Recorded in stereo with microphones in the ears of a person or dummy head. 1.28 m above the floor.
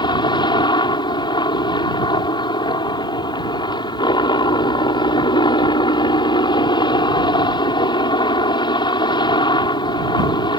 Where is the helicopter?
20° left (ahead or behind).